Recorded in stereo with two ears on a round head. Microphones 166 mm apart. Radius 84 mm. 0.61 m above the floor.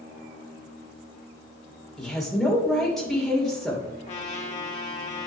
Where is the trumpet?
35° left (ahead or behind), 1.5 m.